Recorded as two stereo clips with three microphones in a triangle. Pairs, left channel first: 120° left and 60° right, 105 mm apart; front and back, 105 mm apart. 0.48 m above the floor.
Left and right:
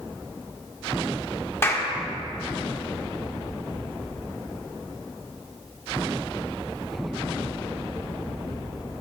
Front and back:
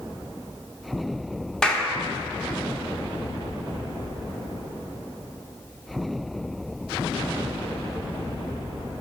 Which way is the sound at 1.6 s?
75° left.